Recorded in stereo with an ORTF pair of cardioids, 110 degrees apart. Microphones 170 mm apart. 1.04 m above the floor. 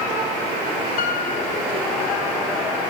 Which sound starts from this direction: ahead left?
A piano, at 1.0 s.